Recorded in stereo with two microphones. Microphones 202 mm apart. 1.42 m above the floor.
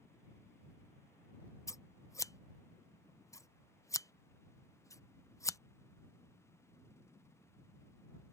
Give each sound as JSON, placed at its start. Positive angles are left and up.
{"t": 1.7, "sound": "scissors", "side_deg": 15}